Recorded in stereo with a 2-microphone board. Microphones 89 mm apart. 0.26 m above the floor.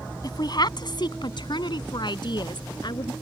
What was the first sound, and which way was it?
A woman speaking, 50° left (ahead or behind).